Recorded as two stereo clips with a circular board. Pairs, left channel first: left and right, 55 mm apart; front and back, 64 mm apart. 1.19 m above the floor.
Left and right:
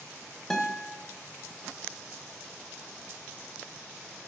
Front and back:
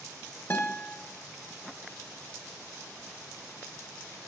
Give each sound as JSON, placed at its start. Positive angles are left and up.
{"t": 0.5, "sound": "a guitar", "azimuth_deg": 15, "distance_m": 1.1}